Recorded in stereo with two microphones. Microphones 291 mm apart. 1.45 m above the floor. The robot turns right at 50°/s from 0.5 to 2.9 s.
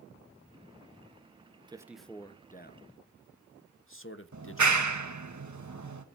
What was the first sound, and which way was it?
A man speaking, 15° right (ahead or behind).